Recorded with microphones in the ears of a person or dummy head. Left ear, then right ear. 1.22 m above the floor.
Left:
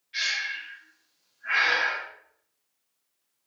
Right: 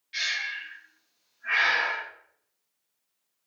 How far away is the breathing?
About 1.4 m.